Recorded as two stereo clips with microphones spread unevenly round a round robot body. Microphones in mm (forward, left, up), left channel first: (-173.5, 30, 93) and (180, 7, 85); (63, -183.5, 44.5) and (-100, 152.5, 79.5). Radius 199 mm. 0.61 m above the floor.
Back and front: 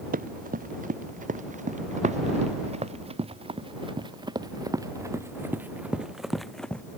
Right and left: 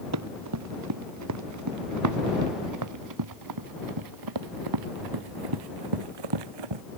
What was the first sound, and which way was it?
Running footsteps, 65° left.